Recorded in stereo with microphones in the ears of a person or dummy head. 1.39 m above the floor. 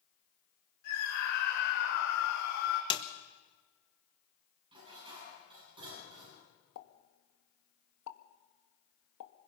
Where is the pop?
75° left (ahead or behind), 1.6 m.